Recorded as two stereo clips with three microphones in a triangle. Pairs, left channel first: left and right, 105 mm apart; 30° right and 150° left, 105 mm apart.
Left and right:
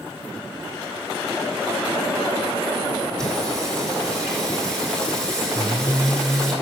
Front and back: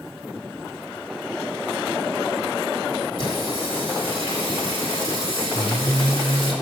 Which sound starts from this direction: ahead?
Singing, at 3.2 s.